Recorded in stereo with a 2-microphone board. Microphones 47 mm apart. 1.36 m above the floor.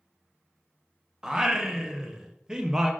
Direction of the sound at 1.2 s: 15° right (ahead or behind).